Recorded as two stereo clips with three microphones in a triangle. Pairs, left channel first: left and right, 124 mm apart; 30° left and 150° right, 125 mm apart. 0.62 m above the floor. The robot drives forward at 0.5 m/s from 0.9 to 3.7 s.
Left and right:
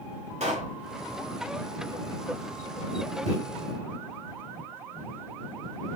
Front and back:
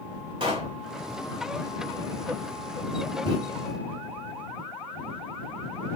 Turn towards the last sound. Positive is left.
turn(degrees=-105)